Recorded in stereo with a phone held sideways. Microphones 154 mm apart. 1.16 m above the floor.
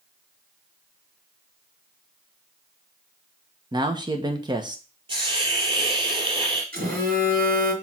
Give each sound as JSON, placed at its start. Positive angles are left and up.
{"t": 3.7, "sound": "a man speaking", "side_deg": -30, "distance_m": 1.0}
{"t": 5.1, "sound": "a hiss", "side_deg": -35, "distance_m": 4.0}
{"t": 6.7, "sound": "a phone buzzing", "side_deg": -75, "distance_m": 4.0}